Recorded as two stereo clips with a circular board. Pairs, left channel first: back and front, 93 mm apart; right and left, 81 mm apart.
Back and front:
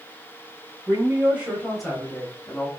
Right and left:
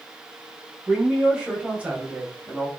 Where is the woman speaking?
25° left, 1.4 m; by 2.7 s 145° left, 1.4 m.